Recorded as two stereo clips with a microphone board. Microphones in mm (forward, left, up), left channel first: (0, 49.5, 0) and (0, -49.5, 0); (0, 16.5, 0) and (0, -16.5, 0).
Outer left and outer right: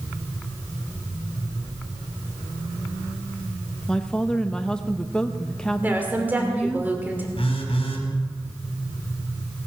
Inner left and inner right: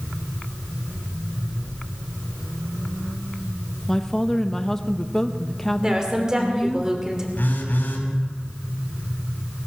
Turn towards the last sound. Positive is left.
turn(degrees=65)  # may be behind; listen again after turning